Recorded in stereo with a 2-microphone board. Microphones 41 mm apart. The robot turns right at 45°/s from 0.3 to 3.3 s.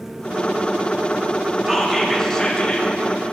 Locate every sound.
1.7 s whispering: 10° right, 1.5 m; by 2.9 s 45° left, 1.5 m